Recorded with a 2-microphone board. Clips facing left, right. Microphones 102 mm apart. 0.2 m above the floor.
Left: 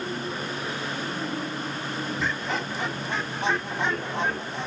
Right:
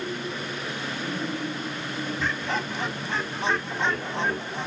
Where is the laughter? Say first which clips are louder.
Right 1 dB; 10° left (ahead or behind), 1.5 m; by 4.7 s 15° left (ahead or behind), 1.7 m.